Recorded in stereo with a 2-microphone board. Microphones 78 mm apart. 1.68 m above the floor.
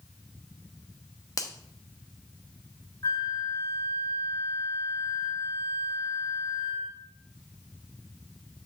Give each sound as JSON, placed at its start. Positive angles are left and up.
{"t": 1.4, "sound": "a finger snap", "side_deg": 45, "distance_m": 0.9}
{"t": 3.0, "sound": "a flute", "side_deg": 45, "distance_m": 0.8}